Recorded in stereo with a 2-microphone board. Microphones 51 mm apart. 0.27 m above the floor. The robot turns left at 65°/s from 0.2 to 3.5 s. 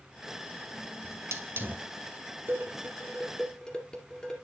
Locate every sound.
1.0 s a hiss: 85° right, 1.2 m; by 1.9 s 30° right (ahead or behind), 1.2 m
2.5 s dishes clattering: 50° right (ahead or behind), 2.5 m; by 4.3 s 15° left (ahead or behind), 2.5 m